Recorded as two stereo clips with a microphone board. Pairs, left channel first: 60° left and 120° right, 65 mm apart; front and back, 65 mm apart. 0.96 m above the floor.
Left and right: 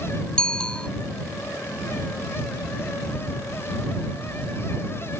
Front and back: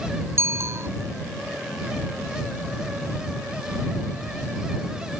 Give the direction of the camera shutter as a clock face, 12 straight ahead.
I don't hear a camera shutter.